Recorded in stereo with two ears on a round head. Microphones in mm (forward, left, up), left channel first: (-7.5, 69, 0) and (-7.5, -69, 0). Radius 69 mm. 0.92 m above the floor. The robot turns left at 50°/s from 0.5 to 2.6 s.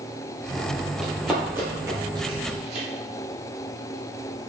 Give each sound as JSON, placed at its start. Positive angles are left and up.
{"t": 1.0, "sound": "running footsteps", "side_deg": -5, "distance_m": 1.2}